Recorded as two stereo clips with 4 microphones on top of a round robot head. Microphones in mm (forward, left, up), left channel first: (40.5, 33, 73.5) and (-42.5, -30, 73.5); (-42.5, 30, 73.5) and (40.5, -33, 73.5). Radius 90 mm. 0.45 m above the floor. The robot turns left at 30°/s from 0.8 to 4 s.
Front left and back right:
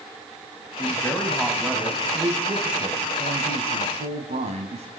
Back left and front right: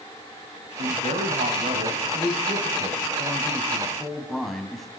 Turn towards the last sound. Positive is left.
turn(degrees=-130)